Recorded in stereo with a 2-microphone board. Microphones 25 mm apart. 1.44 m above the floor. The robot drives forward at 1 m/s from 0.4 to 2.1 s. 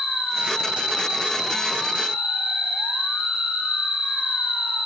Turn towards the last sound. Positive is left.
turn(degrees=-80)